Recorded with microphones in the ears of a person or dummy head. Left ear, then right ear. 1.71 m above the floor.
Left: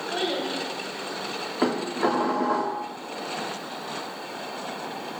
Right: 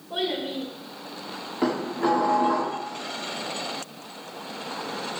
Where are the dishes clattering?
25° left (ahead or behind), 2.5 m.